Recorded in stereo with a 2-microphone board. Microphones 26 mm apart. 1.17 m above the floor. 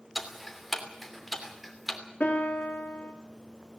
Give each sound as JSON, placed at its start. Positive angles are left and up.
{"t": 0.1, "sound": "ticking", "side_deg": 0, "distance_m": 3.0}
{"t": 2.2, "sound": "a piano", "side_deg": 65, "distance_m": 3.0}